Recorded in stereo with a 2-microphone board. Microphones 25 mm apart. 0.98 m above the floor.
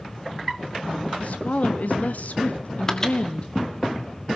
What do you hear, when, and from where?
1.2 s a woman speaking: 65° left (ahead or behind), 2 m; by 3.9 s 30° left (ahead or behind), 1.7 m
2.9 s a microwave: 15° left (ahead or behind), 1.8 m